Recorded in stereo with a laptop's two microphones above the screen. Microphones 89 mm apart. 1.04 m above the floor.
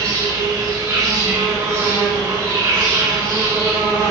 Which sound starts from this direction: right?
An insect, at 0.0 s.